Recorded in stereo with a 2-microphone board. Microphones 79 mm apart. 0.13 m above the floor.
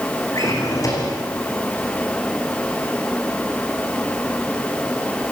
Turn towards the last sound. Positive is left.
turn(degrees=45)  # may be behind; listen again after turning